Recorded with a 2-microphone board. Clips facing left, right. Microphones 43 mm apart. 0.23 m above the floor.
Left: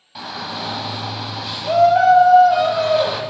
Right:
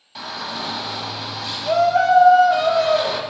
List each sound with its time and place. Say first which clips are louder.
0.1 s a shout: left 1 dB; 5° left (ahead or behind), 1.0 m